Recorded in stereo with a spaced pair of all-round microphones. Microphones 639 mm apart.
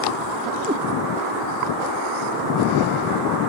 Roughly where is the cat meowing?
Centre.